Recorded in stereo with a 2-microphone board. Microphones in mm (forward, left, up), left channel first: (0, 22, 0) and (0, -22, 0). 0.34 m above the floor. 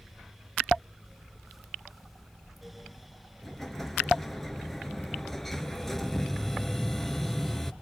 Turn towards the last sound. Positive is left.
turn(degrees=5)  # may be behind; listen again after turning